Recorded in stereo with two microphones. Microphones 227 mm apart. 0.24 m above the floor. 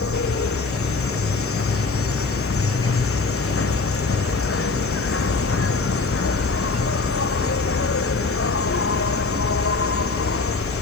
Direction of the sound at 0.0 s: 80° left.